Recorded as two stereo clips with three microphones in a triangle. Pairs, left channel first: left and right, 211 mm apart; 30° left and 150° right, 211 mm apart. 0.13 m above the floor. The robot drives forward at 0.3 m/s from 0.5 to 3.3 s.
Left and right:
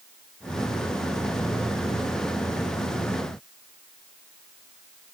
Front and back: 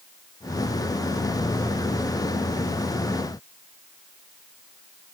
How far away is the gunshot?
I don't hear a gunshot.